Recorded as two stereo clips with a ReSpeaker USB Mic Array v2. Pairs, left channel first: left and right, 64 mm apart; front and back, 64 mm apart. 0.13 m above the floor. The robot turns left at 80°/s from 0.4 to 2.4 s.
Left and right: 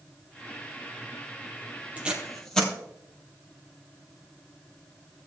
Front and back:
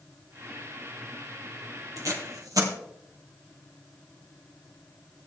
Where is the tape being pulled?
155° right, 3 m; by 2.7 s 170° left, 3 m.